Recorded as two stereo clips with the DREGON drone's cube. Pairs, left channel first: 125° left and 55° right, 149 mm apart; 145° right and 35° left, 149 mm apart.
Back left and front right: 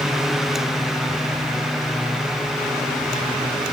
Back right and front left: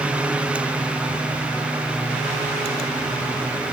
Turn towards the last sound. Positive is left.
No sound to turn to.